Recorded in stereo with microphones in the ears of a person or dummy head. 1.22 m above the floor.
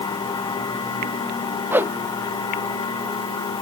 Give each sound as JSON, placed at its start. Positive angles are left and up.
{"t": 0.0, "sound": "a machine running", "side_deg": 25}
{"t": 1.7, "sound": "a whoosh", "side_deg": -10}